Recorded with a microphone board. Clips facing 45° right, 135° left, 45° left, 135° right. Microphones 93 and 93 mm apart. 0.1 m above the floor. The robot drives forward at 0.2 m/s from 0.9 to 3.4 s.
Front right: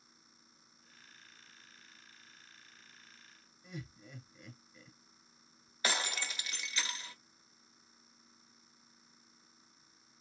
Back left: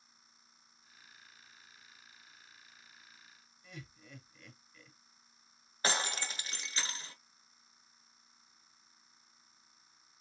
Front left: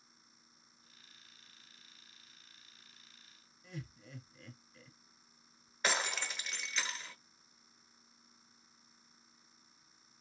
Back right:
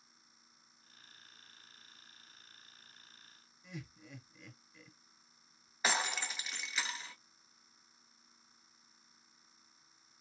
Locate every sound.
3.6 s laughter: 100° right, 1.1 m
5.8 s breaking glass: 140° left, 0.8 m